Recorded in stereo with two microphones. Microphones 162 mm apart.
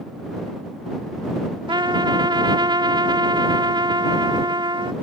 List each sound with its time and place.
1.7 s a trumpet: 30° right (ahead or behind)